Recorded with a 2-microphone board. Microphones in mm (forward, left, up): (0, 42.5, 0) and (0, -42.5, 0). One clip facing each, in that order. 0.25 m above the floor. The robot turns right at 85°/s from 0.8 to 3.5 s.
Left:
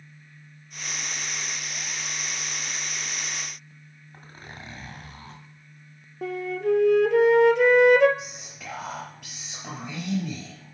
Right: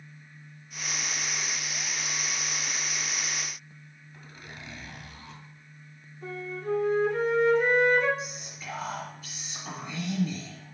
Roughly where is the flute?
Left.